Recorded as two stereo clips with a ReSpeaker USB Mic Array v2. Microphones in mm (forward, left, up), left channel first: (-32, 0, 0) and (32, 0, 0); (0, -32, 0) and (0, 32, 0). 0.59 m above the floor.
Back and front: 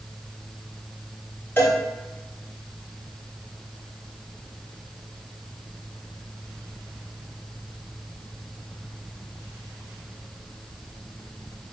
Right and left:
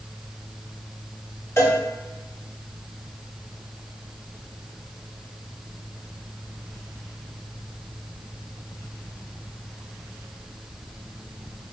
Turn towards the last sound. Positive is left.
turn(degrees=-130)